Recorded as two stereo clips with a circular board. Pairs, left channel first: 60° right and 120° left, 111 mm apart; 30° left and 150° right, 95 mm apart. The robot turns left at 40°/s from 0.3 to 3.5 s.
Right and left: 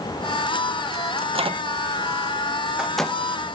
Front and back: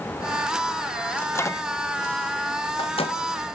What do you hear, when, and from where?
1.2 s a microwave: 100° left, 1.3 m; by 3.2 s 20° left, 1.3 m